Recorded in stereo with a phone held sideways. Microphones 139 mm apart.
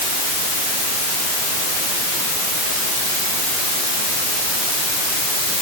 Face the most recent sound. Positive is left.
No sound to turn to.